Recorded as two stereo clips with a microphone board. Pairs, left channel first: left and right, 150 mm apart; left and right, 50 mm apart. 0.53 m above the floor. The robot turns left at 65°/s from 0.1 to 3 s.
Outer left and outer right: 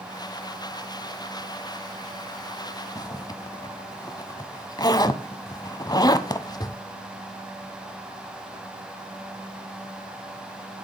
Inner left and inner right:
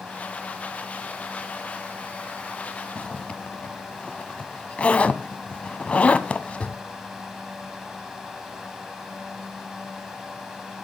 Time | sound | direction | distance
3.0 | a zipper | 25° left (ahead or behind) | 0.8 m